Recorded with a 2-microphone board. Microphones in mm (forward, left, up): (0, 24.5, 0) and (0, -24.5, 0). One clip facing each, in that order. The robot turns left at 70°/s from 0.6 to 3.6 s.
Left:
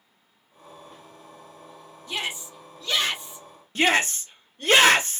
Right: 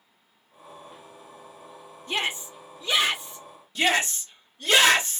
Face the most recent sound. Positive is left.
turn(degrees=45)  # may be behind; listen again after turning